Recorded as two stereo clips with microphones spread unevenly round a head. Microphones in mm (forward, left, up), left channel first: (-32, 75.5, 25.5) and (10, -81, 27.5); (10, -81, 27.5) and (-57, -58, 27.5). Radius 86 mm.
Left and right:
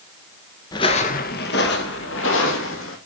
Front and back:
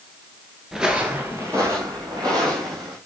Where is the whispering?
I don't hear whispering.